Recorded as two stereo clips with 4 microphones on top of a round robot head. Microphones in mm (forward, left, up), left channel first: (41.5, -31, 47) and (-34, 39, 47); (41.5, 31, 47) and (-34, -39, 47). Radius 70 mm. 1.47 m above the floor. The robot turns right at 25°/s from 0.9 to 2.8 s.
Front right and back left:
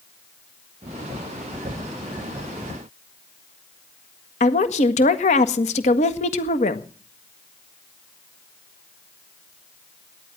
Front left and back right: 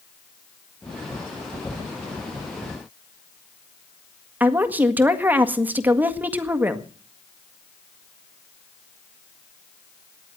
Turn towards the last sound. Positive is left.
turn(degrees=-65)